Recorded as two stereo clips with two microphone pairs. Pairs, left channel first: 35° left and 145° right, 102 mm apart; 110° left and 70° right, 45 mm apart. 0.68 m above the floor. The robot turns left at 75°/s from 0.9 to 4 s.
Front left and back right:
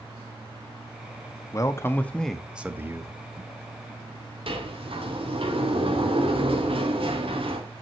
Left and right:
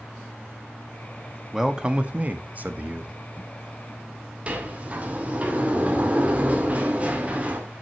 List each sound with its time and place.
1.5 s a man speaking: 10° left, 0.9 m; by 3.1 s 110° right, 0.9 m
4.5 s a sliding door: 125° right, 1.8 m